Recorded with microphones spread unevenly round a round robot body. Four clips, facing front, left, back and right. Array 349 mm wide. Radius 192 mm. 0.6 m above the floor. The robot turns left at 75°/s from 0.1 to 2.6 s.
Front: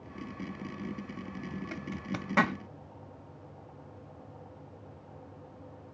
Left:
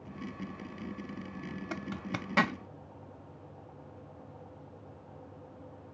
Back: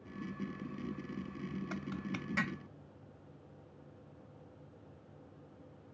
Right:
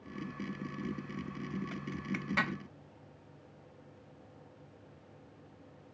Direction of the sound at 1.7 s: 85° left.